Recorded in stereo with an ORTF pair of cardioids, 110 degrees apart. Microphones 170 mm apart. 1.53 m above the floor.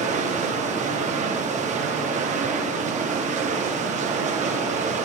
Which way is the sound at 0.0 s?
45° right.